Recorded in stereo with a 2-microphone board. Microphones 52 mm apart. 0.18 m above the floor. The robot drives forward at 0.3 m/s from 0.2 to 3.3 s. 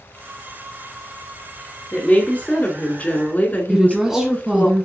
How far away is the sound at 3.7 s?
About 1.2 m.